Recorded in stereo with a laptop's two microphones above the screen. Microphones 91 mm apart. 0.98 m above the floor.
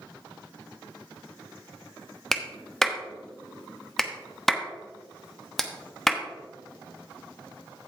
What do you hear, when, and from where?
2.3 s a clap: 5° left (ahead or behind), 1.1 m